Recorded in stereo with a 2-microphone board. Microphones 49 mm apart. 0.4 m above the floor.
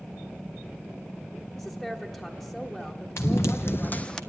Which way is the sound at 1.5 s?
10° left (ahead or behind).